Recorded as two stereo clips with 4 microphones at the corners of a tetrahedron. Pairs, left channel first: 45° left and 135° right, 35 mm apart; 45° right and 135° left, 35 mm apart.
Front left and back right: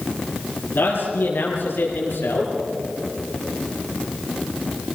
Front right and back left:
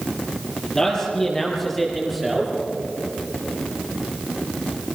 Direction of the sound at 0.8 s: 25° left.